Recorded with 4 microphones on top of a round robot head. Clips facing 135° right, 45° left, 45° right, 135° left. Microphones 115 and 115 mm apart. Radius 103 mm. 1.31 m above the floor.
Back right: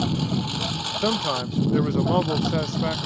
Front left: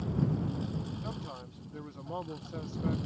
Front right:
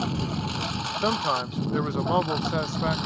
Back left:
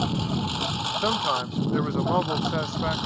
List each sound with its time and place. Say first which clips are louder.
0.0 s a lawn mower: back right 7 dB, back left 2 dB; 150° right; by 3.1 s 145° right
1.0 s a man speaking: back right 17 dB, front right 1 dB; 130° right